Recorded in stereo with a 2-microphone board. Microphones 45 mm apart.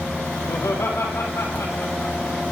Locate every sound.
0.5 s laughter: 80° left, 8 m